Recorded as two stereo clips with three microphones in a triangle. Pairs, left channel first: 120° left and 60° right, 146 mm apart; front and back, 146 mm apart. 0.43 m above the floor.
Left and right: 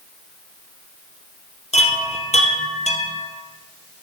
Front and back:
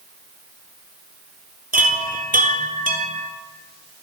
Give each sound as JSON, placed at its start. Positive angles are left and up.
{"t": 1.7, "sound": "a chime", "azimuth_deg": 160, "distance_m": 1.8}